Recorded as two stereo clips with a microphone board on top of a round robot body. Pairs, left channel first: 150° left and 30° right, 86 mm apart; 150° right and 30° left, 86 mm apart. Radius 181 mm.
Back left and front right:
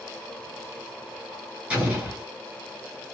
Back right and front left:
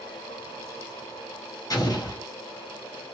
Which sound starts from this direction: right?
An explosion, at 1.7 s.